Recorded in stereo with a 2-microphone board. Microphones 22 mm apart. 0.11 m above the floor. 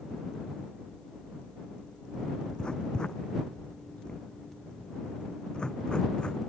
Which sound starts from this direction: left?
Writing, at 2.6 s.